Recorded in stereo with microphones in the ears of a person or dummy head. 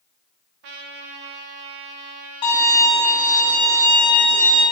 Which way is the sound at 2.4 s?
25° left (ahead or behind).